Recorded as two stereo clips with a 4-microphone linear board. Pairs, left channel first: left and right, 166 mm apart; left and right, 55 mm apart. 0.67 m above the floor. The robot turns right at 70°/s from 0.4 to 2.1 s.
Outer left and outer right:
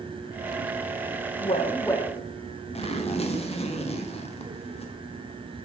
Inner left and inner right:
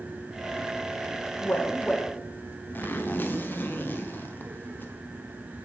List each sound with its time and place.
1.4 s a woman speaking: 125° left, 0.7 m; by 2.2 s 175° left, 0.7 m
2.8 s a zipper: 40° left (ahead or behind), 0.7 m